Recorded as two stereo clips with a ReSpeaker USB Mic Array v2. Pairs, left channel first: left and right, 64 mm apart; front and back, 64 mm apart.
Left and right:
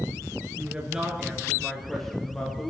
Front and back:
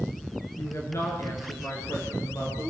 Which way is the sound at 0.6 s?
30° right.